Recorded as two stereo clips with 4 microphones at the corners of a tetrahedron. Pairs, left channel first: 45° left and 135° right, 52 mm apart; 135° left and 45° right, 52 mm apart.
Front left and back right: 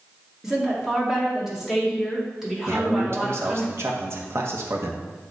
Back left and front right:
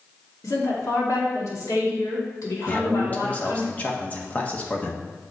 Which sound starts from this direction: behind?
A man speaking, at 2.7 s.